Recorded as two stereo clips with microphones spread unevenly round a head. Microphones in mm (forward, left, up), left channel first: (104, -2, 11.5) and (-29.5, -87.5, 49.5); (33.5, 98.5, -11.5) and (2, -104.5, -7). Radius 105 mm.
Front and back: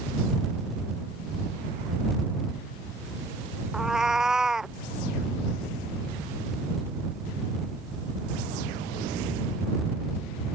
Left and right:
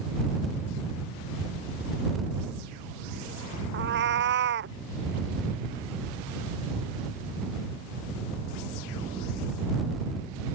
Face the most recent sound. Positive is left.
turn(degrees=-65)